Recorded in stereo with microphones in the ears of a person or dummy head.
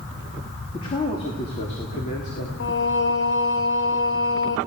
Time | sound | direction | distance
0.7 | a man speaking | 25° left (ahead or behind) | 3 m
2.6 | singing | 60° left (ahead or behind) | 1.1 m